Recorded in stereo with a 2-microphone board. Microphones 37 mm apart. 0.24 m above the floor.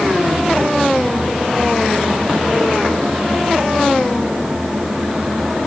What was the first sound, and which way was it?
Only background noise.